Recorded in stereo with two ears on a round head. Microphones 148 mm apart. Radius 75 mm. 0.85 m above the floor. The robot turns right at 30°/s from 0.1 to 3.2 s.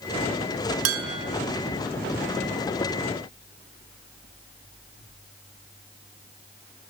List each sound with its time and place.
0.8 s dishes clattering: 85° right, 4 m; by 1.2 s 75° right (ahead or behind), 4 m